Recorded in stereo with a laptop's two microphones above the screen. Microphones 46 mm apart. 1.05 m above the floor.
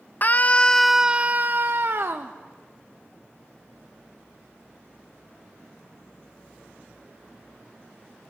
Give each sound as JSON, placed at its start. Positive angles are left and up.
{"t": 0.2, "sound": "a scream", "side_deg": 40, "distance_m": 0.7}